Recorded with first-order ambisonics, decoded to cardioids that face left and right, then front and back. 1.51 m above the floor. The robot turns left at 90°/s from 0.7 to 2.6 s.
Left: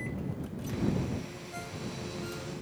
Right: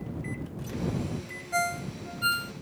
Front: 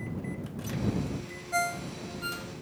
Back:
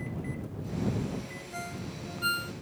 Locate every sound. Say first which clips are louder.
1.5 s a ringtone: right 13 dB, front 12 dB; 45° right; by 2.5 s 135° right